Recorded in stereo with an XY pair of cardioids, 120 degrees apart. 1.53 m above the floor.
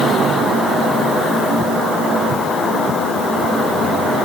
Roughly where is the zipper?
No zipper in this recording.